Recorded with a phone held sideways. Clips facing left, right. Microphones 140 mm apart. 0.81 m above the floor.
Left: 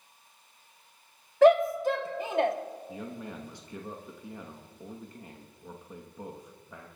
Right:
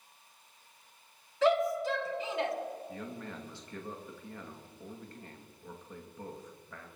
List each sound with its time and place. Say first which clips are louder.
1.4 s a shout: left 8 dB; 50° left (ahead or behind), 1.1 m
2.9 s a man speaking: left 2 dB; 15° left (ahead or behind), 1.0 m